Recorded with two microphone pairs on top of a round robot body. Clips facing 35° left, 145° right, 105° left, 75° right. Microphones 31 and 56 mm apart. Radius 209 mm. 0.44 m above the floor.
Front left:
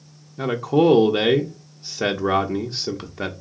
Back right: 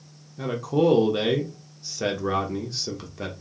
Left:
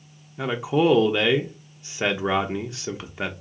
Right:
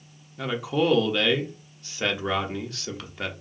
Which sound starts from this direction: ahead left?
A man speaking, at 0.4 s.